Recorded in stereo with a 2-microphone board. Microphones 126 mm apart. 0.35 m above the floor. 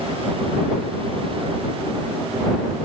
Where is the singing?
I don't hear singing.